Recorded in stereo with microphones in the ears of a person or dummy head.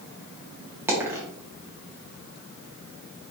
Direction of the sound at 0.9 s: 10° right (ahead or behind).